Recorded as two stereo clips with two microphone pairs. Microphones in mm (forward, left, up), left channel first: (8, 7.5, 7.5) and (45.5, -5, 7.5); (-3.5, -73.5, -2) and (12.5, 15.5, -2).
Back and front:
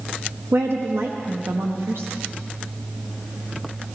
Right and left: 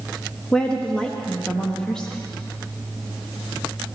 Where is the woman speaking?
20° right, 1.3 m.